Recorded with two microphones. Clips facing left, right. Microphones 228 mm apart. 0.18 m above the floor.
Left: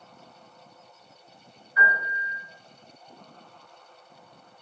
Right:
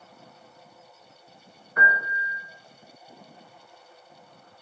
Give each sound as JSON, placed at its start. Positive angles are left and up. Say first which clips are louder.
{"t": 1.8, "sound": "a piano", "louder": "right 1 dB", "side_deg": -60, "distance_m": 1.5}